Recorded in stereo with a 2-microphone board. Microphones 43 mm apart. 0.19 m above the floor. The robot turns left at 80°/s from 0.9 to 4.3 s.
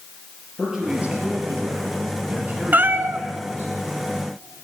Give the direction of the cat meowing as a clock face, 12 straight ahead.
2 o'clock.